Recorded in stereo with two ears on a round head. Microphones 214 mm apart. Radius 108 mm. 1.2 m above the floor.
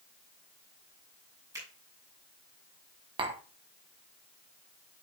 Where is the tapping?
20° right (ahead or behind), 1.0 m.